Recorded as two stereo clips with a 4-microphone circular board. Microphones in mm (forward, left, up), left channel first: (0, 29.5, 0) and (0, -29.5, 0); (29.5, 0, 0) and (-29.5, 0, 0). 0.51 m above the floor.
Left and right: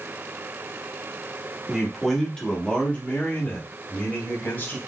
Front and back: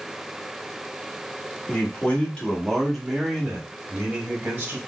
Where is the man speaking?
5° right, 1.1 m; by 4.8 s 125° left, 1.5 m.